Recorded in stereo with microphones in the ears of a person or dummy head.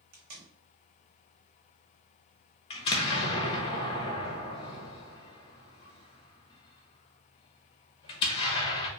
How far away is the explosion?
About 0.8 m.